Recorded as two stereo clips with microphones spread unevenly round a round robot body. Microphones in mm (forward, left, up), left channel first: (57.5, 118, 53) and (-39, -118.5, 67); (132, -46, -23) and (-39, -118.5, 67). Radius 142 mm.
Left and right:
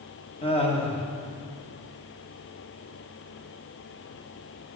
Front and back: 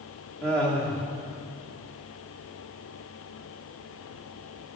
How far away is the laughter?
About 1.4 m.